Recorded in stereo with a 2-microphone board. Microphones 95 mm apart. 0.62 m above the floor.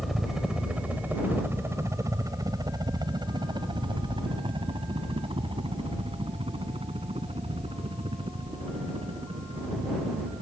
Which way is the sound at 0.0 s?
Centre (ahead or behind).